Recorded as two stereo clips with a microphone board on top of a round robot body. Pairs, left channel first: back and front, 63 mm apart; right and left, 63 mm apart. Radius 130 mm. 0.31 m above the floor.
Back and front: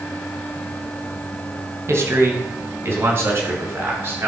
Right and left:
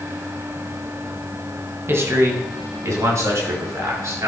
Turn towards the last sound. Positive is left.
turn(degrees=55)